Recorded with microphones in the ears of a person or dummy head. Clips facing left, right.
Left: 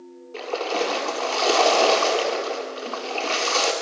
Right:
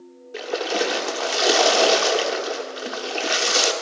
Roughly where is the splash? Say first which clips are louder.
Right 1 dB; centre.